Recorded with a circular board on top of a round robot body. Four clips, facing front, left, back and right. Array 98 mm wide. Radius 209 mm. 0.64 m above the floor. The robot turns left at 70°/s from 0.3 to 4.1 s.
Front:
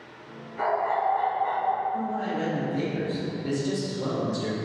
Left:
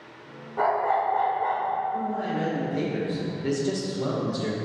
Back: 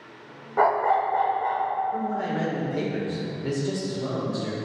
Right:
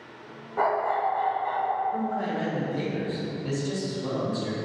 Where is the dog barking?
170° right, 1.2 m; by 1.8 s 105° left, 1.2 m.